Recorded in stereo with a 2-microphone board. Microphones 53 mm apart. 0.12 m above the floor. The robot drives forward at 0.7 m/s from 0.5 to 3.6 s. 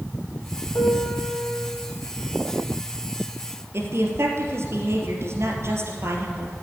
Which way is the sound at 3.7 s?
55° right (ahead or behind).